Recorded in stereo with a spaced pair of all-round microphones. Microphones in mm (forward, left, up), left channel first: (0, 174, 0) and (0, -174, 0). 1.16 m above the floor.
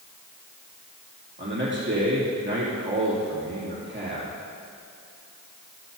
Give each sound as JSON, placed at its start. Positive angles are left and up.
{"t": 1.4, "sound": "a man speaking", "side_deg": -35, "distance_m": 2.5}